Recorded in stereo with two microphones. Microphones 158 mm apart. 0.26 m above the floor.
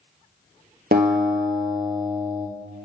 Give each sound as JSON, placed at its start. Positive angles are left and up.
{"t": 0.9, "sound": "a guitar", "side_deg": -75, "distance_m": 1.0}